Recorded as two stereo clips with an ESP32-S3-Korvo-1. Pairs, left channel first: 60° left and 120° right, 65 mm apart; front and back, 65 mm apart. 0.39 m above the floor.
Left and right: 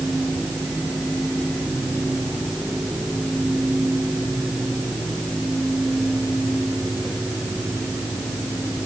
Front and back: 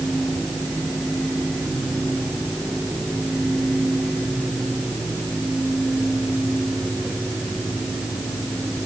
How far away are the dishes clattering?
No dishes clattering in this recording.